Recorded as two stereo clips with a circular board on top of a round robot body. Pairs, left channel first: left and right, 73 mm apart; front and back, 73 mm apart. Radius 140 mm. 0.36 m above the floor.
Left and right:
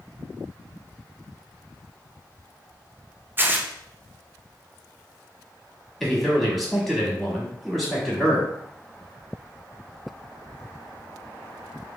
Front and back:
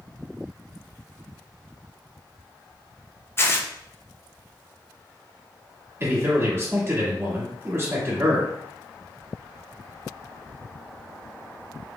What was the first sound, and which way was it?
Tearing paper, 40° right.